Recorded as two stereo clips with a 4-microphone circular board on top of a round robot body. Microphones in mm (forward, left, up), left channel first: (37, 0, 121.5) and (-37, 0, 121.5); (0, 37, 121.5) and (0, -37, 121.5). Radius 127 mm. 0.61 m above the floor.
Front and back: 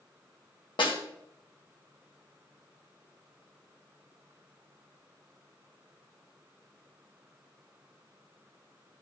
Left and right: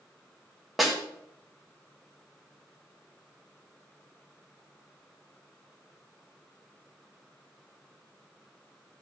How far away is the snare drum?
About 1.6 m.